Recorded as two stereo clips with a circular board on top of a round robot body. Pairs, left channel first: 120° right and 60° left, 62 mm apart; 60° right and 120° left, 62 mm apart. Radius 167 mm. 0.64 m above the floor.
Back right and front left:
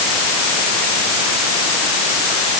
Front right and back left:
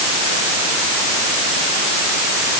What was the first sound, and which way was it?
Only background noise.